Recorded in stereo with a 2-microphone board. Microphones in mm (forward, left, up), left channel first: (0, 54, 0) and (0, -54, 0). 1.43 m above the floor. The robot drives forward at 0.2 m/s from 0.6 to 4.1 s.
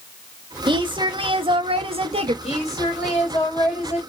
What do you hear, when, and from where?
0.7 s a woman speaking: 45° right (ahead or behind), 0.9 m; by 2.3 s 65° right (ahead or behind), 0.7 m
2.4 s a woman speaking: 75° left (ahead or behind), 2.0 m; by 4.0 s 65° left (ahead or behind), 2 m